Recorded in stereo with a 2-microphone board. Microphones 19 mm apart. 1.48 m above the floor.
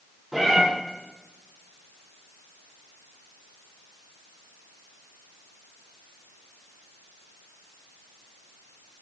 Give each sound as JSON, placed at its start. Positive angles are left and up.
{"t": 0.3, "sound": "a cat meowing", "side_deg": -20, "distance_m": 3.0}